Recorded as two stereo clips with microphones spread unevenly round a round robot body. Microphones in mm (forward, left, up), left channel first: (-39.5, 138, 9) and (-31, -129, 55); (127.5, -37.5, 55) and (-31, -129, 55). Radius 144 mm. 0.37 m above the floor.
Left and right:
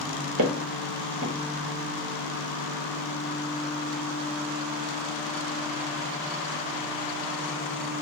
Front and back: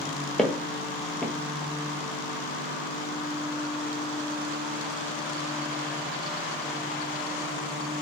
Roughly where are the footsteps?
Ahead right.